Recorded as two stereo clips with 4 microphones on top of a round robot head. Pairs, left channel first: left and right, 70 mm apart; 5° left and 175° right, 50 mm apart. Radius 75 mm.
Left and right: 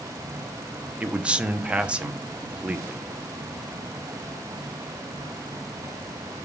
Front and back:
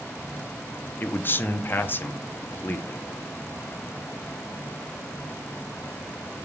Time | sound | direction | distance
1.0 | a man speaking | 20° right | 0.8 m